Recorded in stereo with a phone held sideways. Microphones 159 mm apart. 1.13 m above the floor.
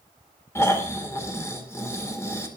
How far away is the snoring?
About 2.5 m.